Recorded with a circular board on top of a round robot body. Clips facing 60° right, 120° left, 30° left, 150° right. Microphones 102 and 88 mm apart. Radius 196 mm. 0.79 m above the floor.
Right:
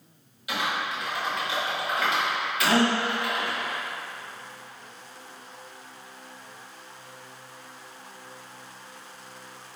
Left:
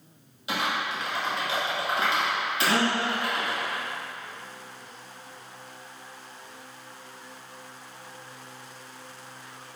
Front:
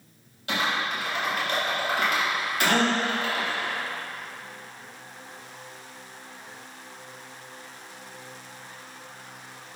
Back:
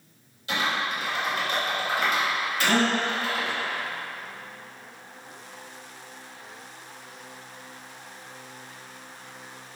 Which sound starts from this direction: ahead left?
Typing on a keyboard, at 0.5 s.